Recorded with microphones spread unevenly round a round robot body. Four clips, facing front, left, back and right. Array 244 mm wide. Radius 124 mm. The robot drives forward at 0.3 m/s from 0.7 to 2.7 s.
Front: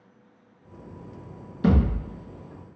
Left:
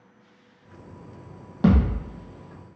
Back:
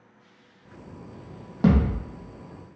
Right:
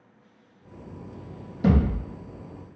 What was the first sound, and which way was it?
A thud, 140° left.